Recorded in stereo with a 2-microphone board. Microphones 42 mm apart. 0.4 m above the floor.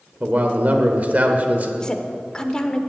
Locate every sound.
0.2 s a man speaking: 40° right (ahead or behind), 1.1 m
1.8 s a woman speaking: 20° left (ahead or behind), 0.8 m